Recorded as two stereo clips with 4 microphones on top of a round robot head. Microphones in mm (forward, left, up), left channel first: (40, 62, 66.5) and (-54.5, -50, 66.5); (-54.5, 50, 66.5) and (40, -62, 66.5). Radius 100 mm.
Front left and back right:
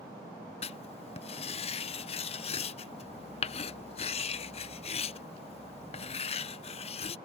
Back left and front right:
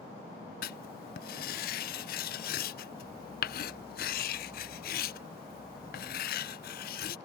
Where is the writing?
100° left.